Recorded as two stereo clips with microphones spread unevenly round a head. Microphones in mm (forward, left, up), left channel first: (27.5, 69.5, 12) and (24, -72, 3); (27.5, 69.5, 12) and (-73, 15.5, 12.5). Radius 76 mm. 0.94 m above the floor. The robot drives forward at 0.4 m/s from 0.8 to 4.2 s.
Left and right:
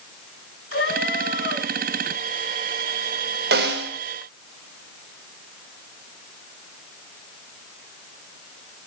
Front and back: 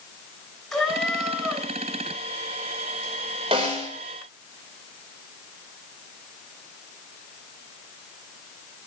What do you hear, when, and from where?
0.7 s a cat meowing: 115° left, 3 m; by 1.7 s 120° left, 3.5 m
3.5 s a snare drum: 95° right, 3 m; by 3.9 s 100° right, 3 m